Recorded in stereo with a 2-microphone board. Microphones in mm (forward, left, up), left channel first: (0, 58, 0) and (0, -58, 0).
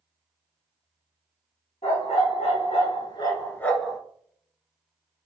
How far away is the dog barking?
About 1.4 m.